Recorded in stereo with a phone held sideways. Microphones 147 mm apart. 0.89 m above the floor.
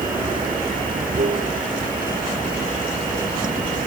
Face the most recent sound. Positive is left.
turn(degrees=-70)  # may be behind; listen again after turning